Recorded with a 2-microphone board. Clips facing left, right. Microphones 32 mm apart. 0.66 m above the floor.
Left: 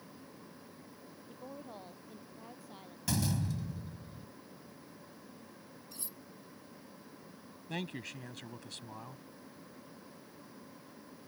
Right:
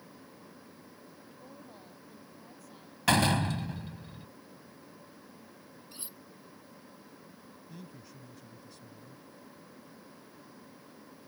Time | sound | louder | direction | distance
1.3 | a woman speaking | left 6 dB | 25° left (ahead or behind) | ?
3.1 | a door slam | right 9 dB | 65° right (ahead or behind) | ?
5.9 | cutlery clinking | right 2 dB | 35° right (ahead or behind) | ?
7.7 | a man speaking | left 11 dB | 80° left | ?